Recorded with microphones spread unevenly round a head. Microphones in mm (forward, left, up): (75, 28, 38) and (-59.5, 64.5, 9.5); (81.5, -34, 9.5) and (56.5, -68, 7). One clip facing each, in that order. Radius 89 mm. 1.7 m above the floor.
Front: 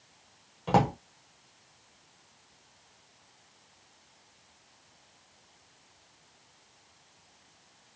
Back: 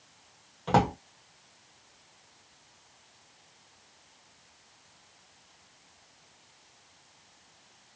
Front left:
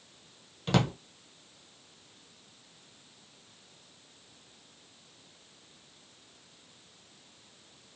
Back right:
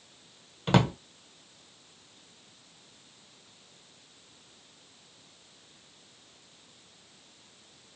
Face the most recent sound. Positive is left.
turn(degrees=-70)